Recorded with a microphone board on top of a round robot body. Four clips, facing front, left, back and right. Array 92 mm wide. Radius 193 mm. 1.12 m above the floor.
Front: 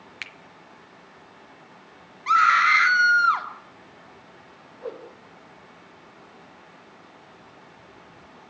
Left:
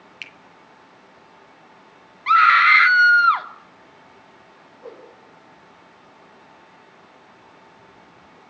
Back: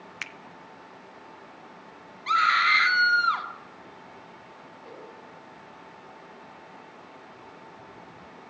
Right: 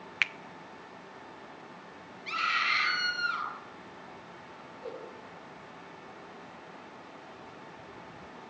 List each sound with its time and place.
0.2 s a finger snap: 105° right, 1.0 m
2.3 s a scream: 70° left, 3 m
4.8 s a whoosh: 15° left, 4.5 m